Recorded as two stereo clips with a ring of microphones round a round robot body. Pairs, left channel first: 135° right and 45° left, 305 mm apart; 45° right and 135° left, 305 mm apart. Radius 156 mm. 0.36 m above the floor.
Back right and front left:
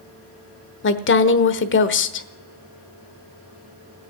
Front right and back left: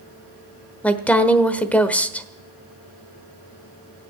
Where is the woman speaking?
130° right, 1.2 m.